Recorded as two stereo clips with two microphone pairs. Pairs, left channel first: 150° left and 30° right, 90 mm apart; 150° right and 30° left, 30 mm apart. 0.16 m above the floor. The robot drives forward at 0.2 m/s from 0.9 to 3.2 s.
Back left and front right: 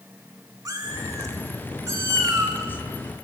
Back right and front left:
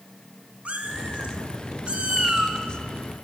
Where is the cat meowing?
Straight ahead, 0.8 m; by 2.6 s 5° left, 0.6 m.